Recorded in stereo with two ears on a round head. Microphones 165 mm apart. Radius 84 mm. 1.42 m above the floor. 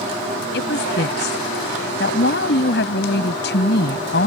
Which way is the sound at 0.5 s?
55° left (ahead or behind).